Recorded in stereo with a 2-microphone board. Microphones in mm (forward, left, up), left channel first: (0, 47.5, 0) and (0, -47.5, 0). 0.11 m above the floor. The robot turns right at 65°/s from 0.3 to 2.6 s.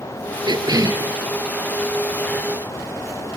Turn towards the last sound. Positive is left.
turn(degrees=60)